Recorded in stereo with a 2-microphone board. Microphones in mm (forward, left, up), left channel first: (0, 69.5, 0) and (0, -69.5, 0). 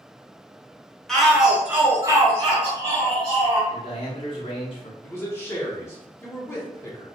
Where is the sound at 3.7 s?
40° left (ahead or behind), 1.0 m.